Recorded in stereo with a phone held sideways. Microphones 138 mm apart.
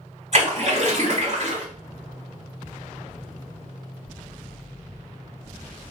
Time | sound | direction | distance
0.3 | a splash | 55° right (ahead or behind) | 1.8 m